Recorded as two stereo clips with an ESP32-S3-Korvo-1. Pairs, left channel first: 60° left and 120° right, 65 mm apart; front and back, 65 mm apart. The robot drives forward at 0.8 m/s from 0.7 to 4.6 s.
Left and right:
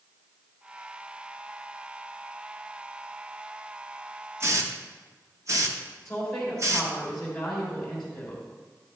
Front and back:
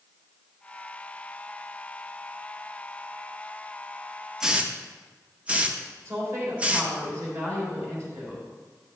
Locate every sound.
4.4 s a hiss: 100° right, 0.7 m; by 6.9 s 115° right, 0.7 m
6.0 s a woman speaking: 145° left, 3.5 m